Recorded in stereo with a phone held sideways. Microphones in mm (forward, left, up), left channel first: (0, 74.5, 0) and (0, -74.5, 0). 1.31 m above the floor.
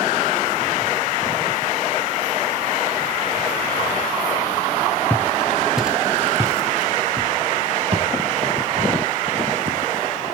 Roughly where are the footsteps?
Centre.